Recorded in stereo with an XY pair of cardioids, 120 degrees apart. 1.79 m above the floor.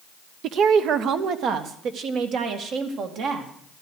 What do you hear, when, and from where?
0.4 s a woman speaking: 65° right, 0.9 m